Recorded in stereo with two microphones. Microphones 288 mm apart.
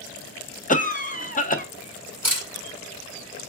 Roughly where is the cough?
Left.